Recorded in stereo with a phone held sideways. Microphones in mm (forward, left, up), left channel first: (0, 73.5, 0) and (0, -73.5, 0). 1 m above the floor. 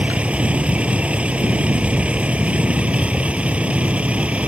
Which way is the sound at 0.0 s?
10° right (ahead or behind).